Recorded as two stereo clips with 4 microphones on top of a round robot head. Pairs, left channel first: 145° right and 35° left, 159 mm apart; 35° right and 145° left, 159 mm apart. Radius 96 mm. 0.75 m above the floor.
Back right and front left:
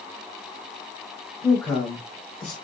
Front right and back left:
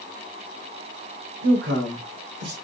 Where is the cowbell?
No cowbell in this recording.